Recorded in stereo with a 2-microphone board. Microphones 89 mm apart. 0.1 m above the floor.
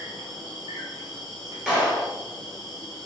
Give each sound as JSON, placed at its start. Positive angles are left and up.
{"t": 0.0, "sound": "an insect", "side_deg": -45, "distance_m": 1.0}
{"t": 1.7, "sound": "a clap", "side_deg": -5, "distance_m": 1.3}